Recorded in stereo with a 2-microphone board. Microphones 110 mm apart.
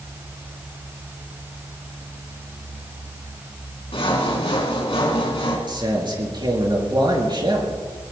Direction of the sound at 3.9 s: 55° left (ahead or behind).